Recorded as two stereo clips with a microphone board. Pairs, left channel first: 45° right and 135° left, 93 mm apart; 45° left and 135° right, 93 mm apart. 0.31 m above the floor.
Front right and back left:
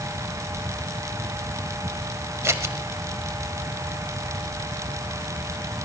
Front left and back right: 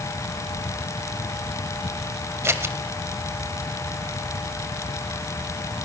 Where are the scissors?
Straight behind, 0.8 m.